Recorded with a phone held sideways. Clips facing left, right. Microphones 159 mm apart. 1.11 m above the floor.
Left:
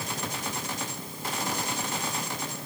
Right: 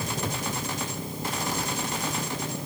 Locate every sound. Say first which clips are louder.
0.0 s an engine running: right 4 dB; 20° right (ahead or behind)